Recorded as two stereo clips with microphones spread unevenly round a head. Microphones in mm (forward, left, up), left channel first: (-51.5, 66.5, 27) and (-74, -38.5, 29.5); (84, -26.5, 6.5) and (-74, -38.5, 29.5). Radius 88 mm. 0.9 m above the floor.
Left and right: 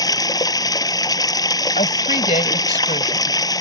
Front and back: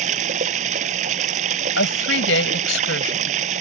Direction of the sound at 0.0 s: 130° left.